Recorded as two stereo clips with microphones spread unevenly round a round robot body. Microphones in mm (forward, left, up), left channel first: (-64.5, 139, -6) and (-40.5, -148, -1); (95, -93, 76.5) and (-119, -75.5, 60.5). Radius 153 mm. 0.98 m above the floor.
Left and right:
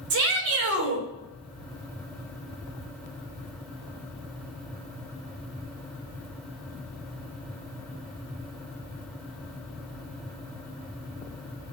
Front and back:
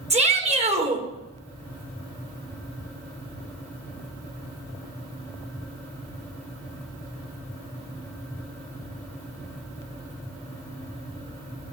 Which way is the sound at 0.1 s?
125° right.